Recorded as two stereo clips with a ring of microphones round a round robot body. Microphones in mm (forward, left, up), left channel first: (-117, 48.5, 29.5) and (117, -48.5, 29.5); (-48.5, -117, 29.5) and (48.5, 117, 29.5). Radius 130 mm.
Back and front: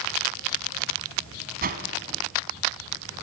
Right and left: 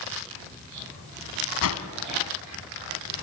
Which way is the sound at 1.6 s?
80° right.